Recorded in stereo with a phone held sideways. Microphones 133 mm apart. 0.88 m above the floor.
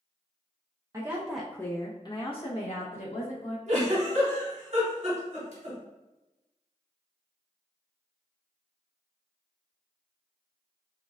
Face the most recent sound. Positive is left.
turn(degrees=-65)  # may be behind; listen again after turning